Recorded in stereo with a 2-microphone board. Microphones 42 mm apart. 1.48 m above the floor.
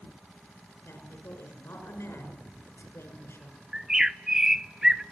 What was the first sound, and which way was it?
A woman speaking, 75° left (ahead or behind).